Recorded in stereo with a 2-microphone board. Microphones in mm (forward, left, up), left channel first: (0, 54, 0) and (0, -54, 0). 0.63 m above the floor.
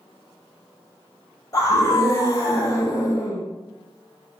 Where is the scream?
30° left (ahead or behind), 0.8 m.